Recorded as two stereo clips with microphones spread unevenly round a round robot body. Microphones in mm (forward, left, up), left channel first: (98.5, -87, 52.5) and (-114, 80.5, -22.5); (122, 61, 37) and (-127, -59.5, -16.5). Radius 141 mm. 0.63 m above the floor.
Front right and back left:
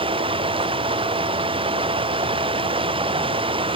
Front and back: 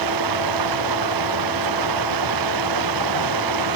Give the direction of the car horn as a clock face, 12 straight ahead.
I don't hear a car horn.